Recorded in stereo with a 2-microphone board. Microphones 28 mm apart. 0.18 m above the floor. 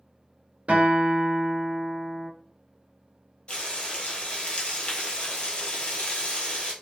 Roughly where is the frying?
Left.